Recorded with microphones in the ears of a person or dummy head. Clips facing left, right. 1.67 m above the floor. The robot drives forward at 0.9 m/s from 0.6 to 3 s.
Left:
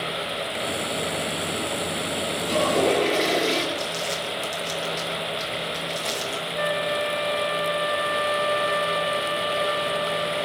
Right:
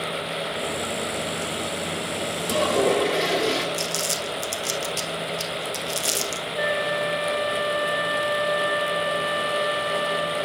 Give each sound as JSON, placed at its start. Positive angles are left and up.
{"t": 2.4, "sound": "a toilet flushing", "side_deg": 0, "distance_m": 9.0}
{"t": 3.7, "sound": "crumpling", "side_deg": -40, "distance_m": 1.3}
{"t": 6.6, "sound": "a flute", "side_deg": -10, "distance_m": 0.6}